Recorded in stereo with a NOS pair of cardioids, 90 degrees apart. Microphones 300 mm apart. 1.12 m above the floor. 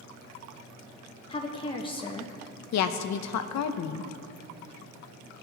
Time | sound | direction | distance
1.3 | a woman speaking | 20° left | 1.1 m
2.7 | a woman speaking | 65° left | 0.8 m